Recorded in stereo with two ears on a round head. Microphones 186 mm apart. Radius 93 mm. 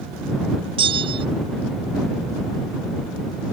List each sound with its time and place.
0.8 s a bell: 25° right (ahead or behind)